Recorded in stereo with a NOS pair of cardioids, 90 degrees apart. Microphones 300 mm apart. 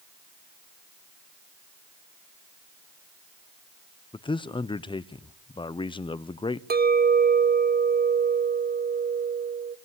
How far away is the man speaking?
About 0.9 m.